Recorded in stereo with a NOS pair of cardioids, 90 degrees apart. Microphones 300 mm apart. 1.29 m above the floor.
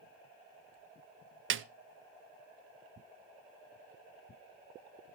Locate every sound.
1.5 s a snare drum: 45° right, 0.6 m